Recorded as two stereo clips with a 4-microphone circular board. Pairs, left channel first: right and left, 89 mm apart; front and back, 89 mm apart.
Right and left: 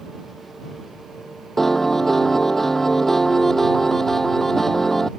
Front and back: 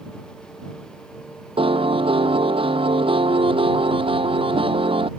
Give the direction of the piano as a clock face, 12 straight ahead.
6 o'clock.